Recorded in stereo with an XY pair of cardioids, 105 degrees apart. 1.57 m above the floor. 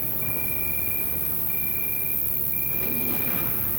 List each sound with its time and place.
0.0 s an insect: 10° right, 1.0 m